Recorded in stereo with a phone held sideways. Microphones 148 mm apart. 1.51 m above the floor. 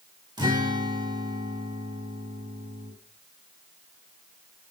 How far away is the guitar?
About 1.5 m.